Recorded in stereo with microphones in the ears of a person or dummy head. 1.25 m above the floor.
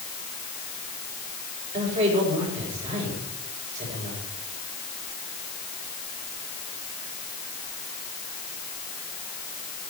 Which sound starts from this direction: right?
A man speaking, at 1.7 s.